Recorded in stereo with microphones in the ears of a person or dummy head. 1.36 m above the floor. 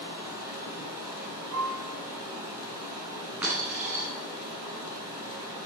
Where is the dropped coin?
15° right (ahead or behind), 1.7 m.